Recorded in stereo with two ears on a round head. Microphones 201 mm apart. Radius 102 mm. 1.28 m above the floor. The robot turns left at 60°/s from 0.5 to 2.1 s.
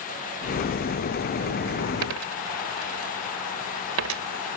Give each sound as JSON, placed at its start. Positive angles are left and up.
{"t": 2.0, "sound": "a dropped coin", "side_deg": -70}